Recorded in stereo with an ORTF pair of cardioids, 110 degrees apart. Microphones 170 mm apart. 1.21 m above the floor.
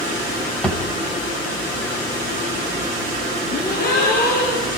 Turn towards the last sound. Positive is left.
turn(degrees=60)